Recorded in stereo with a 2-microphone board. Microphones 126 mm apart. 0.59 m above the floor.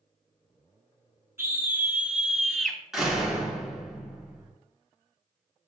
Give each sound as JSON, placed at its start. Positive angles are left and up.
{"t": 1.4, "sound": "a scream", "side_deg": -20, "distance_m": 5.0}
{"t": 2.9, "sound": "a door slam", "side_deg": -5, "distance_m": 5.0}